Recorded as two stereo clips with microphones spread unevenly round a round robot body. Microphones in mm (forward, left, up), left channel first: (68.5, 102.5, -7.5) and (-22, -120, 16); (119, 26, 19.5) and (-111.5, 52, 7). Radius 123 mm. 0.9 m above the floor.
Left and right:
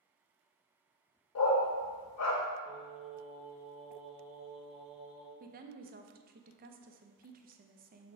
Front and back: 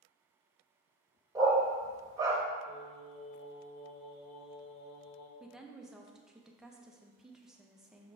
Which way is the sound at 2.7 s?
20° right.